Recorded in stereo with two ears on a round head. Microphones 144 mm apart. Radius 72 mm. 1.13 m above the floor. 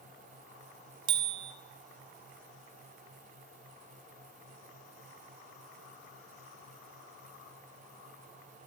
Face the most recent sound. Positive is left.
turn(degrees=-30)  # may be behind; listen again after turning